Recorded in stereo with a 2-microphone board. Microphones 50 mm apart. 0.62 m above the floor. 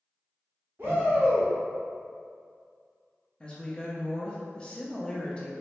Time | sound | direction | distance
0.8 | a shout | 50° right (ahead or behind) | 0.9 m
3.4 | a woman speaking | 20° left (ahead or behind) | 0.7 m